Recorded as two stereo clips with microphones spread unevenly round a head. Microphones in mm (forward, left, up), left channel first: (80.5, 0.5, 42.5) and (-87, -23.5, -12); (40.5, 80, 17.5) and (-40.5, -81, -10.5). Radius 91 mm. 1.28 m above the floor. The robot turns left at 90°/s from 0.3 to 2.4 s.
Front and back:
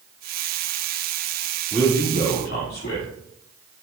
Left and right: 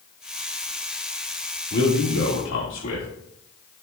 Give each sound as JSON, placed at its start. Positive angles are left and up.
{"t": 1.7, "sound": "a man speaking", "azimuth_deg": 105, "distance_m": 1.9}